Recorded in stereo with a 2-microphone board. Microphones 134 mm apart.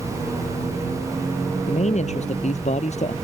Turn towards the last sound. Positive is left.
turn(degrees=55)  # may be behind; listen again after turning